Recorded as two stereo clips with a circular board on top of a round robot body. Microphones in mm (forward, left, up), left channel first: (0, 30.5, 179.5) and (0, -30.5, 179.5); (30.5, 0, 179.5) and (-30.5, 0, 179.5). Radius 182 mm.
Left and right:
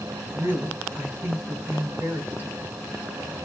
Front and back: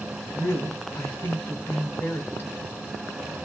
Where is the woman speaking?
35° right, 2.5 m.